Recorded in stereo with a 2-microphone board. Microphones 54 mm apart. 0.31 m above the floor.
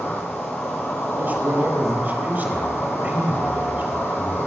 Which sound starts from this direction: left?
An insect, at 0.0 s.